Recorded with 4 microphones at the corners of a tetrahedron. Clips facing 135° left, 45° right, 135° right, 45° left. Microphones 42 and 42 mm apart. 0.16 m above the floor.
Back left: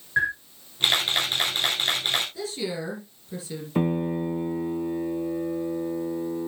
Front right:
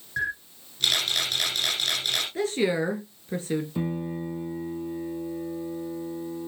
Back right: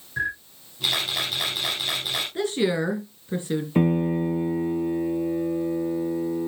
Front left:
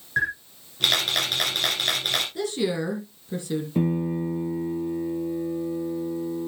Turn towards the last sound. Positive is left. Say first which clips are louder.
# back left 5 dB, back right 4 dB
turn(degrees=180)